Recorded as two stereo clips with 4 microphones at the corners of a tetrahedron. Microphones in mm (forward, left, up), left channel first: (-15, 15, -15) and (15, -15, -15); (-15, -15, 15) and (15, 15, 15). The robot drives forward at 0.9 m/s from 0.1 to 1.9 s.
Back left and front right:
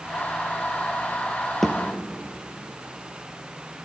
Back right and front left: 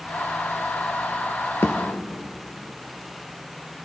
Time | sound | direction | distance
1.6 | a thud | 145° right | 1.3 m